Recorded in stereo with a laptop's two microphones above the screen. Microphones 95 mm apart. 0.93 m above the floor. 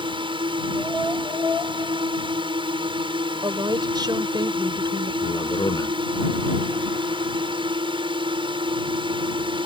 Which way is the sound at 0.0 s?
65° right (ahead or behind).